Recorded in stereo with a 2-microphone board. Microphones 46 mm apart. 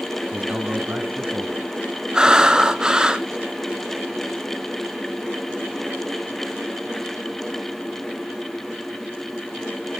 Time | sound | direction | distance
0.3 | a man speaking | 40° right (ahead or behind) | 2.0 m
2.1 | breathing | 20° right (ahead or behind) | 0.7 m